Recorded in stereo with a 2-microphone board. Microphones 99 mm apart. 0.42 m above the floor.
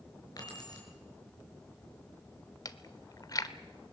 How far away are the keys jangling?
About 5.5 m.